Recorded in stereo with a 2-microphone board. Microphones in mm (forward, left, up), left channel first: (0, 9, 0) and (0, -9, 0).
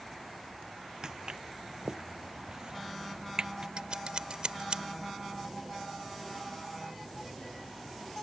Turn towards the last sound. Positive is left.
turn(degrees=-60)  # may be behind; listen again after turning